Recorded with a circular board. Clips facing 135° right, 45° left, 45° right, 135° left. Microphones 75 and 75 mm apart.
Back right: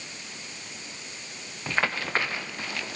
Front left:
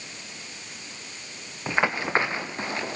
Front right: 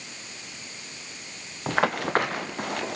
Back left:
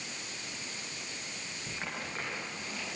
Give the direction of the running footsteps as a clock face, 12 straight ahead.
1 o'clock.